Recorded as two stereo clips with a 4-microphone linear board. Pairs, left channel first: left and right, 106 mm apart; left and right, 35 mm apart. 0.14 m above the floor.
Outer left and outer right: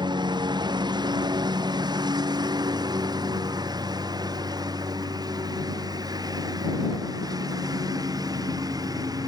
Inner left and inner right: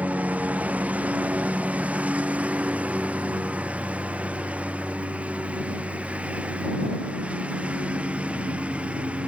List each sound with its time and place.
0.0 s a lawn mower: 45° right (ahead or behind); by 9.3 s 40° right (ahead or behind)